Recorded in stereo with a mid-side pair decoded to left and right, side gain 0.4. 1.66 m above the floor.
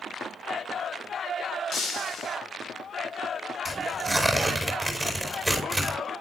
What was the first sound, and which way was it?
Breaking glass, 60° left.